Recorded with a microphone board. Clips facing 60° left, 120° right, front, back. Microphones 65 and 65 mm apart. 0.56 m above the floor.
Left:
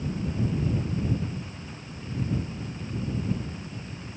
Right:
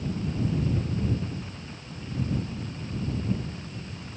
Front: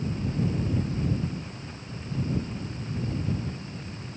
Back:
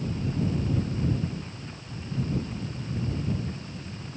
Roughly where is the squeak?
No squeak in this recording.